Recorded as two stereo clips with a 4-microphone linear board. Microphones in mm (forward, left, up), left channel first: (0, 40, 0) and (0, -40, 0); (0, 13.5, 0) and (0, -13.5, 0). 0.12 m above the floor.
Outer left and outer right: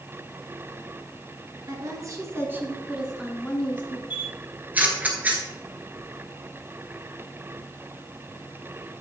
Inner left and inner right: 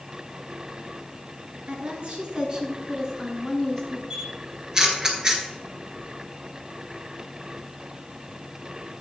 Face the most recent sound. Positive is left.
turn(degrees=-20)  # may be behind; listen again after turning